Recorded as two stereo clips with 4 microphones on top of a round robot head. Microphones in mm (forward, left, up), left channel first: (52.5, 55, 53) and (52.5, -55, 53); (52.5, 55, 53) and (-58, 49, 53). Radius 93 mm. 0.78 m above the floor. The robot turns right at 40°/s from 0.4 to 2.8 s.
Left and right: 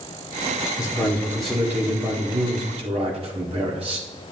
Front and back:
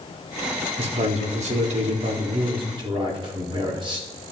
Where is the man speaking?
155° left, 1.6 m; by 4.1 s 125° right, 1.6 m.